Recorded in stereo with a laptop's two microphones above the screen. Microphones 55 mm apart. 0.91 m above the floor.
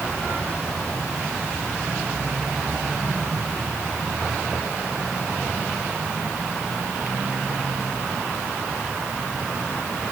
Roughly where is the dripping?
I don't hear dripping.